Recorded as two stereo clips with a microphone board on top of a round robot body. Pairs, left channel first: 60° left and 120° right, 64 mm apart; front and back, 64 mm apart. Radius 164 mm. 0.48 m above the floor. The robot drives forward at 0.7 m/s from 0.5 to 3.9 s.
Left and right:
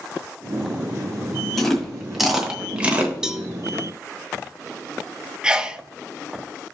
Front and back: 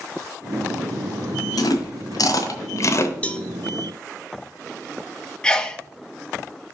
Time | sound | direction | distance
1.6 | chewing | 25° right | 1.7 m
3.2 | a cowbell | 45° right | 1.0 m
5.4 | a sneeze | 60° right | 0.7 m